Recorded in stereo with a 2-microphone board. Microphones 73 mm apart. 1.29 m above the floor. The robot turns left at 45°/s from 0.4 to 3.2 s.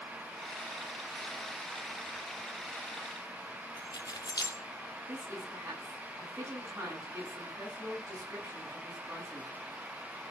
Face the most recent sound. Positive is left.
turn(degrees=-45)  # may be behind; listen again after turning